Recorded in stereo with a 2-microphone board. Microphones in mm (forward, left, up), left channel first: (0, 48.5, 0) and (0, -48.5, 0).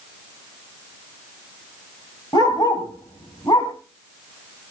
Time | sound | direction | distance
2.3 | a dog barking | 50° left (ahead or behind) | 3.5 m